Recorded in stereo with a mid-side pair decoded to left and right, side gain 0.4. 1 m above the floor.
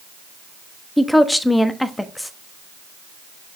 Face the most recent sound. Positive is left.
turn(degrees=5)